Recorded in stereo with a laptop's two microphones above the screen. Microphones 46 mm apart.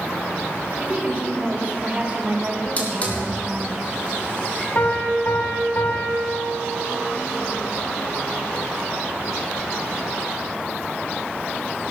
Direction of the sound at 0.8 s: 25° right (ahead or behind).